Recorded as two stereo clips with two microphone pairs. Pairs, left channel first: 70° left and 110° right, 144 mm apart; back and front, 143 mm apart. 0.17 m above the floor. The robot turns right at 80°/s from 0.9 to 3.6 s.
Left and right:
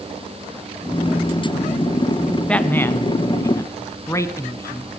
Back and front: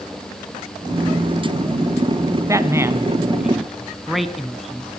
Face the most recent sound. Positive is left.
turn(degrees=90)